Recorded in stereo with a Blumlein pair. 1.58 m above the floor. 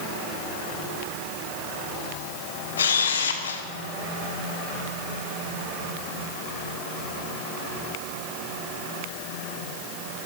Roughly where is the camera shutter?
Ahead left.